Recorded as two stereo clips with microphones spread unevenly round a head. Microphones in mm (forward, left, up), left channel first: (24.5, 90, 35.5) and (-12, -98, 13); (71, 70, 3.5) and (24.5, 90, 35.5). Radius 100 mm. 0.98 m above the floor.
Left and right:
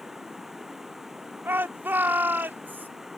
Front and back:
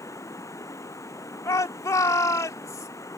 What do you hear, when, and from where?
0.0 s running water: 10° right
1.4 s a shout: 20° right